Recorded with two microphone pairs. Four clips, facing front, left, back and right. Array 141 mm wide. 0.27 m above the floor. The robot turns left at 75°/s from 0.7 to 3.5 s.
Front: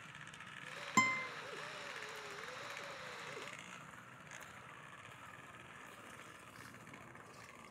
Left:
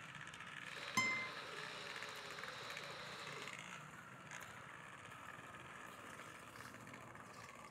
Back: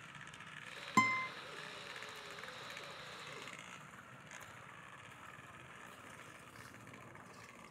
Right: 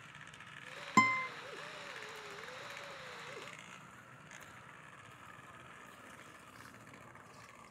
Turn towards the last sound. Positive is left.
turn(degrees=70)